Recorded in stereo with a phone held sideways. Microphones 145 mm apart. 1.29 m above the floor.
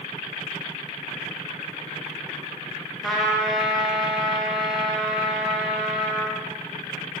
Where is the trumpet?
Centre (ahead or behind), 0.6 m.